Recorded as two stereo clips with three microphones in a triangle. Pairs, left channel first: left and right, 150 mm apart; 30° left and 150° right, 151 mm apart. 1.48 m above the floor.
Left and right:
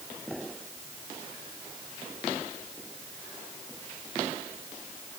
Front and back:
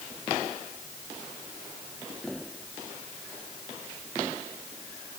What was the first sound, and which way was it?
Only background noise.